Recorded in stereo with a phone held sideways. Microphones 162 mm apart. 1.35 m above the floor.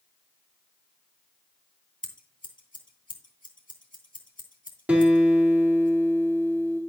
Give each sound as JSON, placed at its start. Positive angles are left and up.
{"t": 2.0, "sound": "scissors", "side_deg": 60, "distance_m": 2.5}
{"t": 4.9, "sound": "a guitar", "side_deg": -10, "distance_m": 2.5}